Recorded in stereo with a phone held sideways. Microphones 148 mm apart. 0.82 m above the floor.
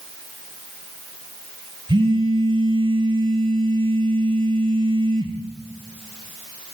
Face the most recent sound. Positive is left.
turn(degrees=-35)  # may be behind; listen again after turning